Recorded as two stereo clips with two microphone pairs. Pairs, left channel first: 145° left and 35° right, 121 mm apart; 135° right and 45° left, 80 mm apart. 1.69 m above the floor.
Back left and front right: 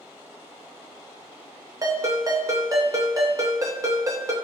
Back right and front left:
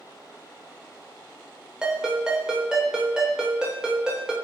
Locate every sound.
1.8 s a ringtone: 25° right, 0.7 m